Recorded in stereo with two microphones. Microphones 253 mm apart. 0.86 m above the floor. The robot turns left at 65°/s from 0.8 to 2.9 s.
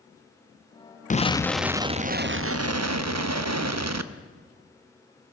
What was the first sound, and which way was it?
An explosion, 30° left.